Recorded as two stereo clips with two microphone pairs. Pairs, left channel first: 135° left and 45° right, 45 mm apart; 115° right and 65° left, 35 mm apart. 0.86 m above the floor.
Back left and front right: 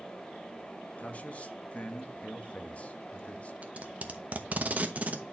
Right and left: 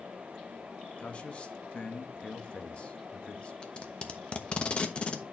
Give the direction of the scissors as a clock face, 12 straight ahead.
No scissors in this recording.